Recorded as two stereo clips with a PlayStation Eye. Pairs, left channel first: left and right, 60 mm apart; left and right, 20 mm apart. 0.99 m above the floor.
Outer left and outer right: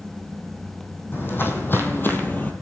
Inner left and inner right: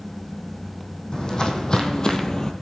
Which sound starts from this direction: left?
Footsteps, at 1.1 s.